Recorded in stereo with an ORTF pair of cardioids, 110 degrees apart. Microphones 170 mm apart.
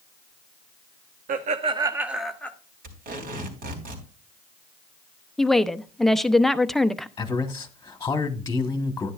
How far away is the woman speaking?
About 0.7 m.